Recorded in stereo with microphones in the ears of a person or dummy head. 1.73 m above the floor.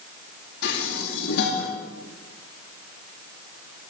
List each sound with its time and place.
0.6 s dishes clattering: 75° left (ahead or behind), 9.5 m